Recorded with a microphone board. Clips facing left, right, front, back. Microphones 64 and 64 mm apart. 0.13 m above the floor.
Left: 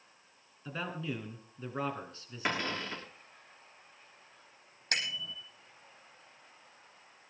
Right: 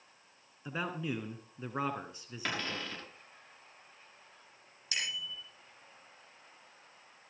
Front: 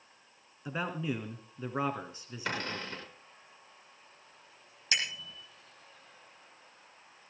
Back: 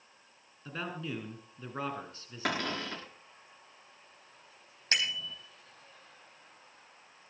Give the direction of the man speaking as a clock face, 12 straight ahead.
1 o'clock.